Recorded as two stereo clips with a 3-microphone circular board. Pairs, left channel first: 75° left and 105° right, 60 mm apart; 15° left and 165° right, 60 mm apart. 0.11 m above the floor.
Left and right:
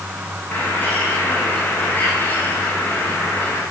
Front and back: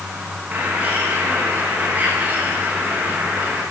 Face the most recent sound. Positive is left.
turn(degrees=135)